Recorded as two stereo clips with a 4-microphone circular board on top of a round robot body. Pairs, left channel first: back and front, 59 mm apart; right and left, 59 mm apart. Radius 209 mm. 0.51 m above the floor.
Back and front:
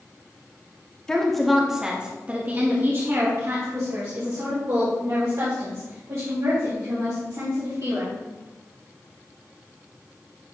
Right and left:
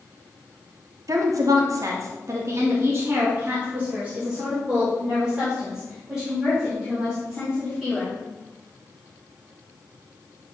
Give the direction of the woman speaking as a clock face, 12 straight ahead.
9 o'clock.